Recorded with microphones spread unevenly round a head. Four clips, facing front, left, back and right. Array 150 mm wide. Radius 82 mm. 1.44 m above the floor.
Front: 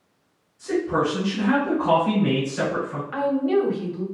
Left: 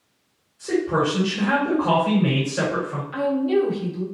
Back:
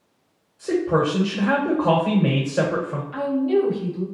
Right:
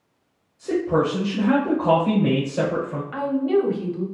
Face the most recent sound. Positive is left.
turn(degrees=-15)